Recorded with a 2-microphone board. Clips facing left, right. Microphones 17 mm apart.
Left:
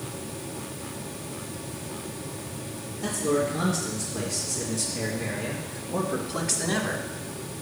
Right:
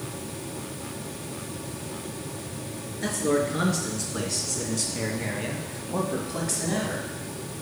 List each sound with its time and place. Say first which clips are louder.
3.0 s a man speaking: right 1 dB; 70° right (ahead or behind), 3.5 m; by 7.1 s 30° left (ahead or behind), 1.5 m